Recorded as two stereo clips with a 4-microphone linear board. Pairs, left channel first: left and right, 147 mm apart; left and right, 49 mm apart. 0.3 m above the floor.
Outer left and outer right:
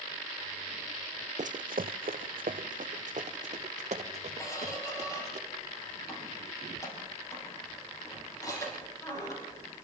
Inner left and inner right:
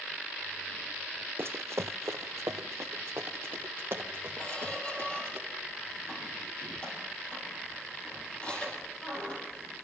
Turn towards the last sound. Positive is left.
turn(degrees=25)  # may be behind; listen again after turning